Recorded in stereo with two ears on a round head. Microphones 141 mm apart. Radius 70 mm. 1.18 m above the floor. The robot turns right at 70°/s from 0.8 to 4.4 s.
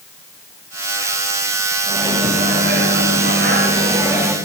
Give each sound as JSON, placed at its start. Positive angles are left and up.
{"t": 1.9, "sound": "a microwave", "azimuth_deg": -170, "distance_m": 2.5}